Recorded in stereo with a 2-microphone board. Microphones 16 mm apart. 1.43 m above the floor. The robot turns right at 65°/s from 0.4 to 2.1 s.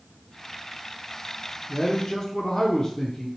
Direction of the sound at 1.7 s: 25° left (ahead or behind).